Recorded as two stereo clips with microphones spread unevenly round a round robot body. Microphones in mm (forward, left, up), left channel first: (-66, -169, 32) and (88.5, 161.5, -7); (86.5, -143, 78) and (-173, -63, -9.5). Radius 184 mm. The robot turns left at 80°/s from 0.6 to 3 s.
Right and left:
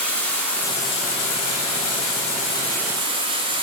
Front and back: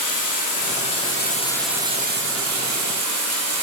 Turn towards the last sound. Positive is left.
turn(degrees=140)